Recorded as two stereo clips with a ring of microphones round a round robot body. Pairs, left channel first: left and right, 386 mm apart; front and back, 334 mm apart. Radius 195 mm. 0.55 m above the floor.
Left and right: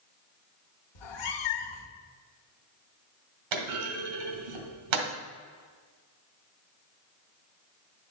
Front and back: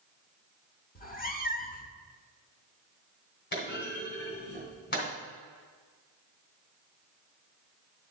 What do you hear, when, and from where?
0.9 s a cat meowing: 65° left, 1.1 m
3.5 s a clunk: 65° right, 2 m